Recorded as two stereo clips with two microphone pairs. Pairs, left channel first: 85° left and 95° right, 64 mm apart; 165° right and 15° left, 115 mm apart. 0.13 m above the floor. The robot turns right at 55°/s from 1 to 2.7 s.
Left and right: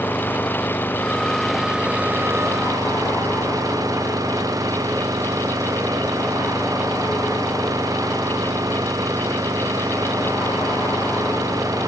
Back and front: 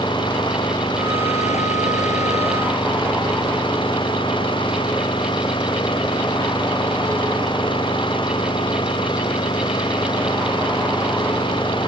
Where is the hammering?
I don't hear hammering.